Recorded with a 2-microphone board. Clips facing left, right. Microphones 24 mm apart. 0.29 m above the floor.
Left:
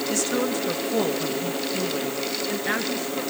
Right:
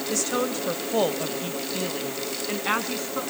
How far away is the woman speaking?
About 1.3 m.